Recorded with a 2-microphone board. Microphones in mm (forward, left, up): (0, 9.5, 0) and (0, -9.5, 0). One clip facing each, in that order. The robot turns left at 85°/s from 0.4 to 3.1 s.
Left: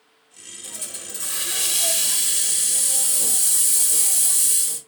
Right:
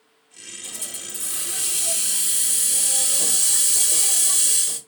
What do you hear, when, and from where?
0.6 s a hiss: 170° right, 0.7 m; by 4.8 s 20° right, 0.7 m